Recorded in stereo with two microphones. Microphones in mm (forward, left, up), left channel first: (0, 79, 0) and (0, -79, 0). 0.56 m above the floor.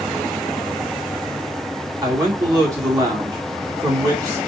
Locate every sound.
2.0 s a man speaking: 20° right (ahead or behind), 1.2 m